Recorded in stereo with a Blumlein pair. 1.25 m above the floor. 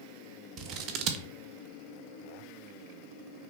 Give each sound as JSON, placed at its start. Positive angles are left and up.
{"t": 0.6, "sound": "scissors", "azimuth_deg": -35, "distance_m": 1.6}